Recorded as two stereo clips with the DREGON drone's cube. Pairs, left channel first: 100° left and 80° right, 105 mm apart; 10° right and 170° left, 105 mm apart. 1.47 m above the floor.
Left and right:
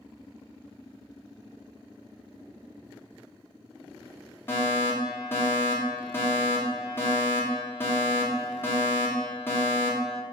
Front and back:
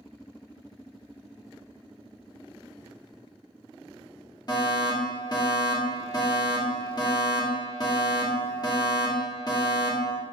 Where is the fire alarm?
35° left, 2.5 m.